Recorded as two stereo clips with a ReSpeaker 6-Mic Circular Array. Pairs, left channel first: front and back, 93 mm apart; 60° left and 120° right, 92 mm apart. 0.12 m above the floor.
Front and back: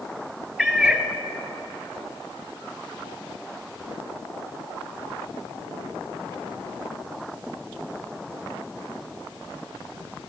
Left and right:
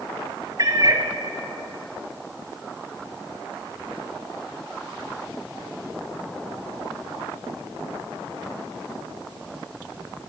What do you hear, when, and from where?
0.6 s a cat meowing: 95° right, 1.0 m